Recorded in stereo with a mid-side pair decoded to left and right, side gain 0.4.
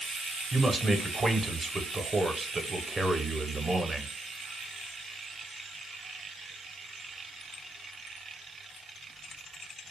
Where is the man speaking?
40° right, 0.7 m.